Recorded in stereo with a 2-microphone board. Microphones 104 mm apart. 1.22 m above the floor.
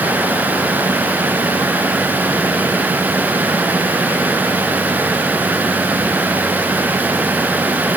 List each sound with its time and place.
Only background noise.